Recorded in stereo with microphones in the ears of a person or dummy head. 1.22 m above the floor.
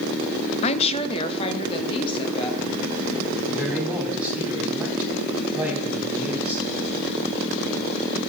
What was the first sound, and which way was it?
A woman speaking, 30° left (ahead or behind).